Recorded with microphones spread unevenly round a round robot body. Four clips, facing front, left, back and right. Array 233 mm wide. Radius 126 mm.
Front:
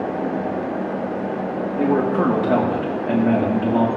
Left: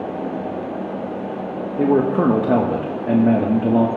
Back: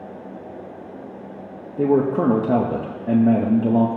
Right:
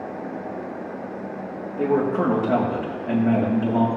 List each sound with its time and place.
1.8 s a man speaking: 85° left, 0.9 m